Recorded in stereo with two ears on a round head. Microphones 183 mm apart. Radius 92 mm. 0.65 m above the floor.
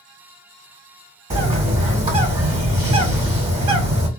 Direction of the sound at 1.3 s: 30° right (ahead or behind).